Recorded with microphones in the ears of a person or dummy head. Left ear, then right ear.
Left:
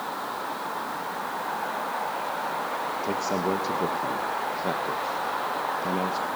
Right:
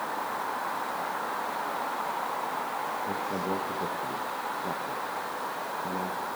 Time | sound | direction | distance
3.0 | a man speaking | 55° left (ahead or behind) | 2.0 m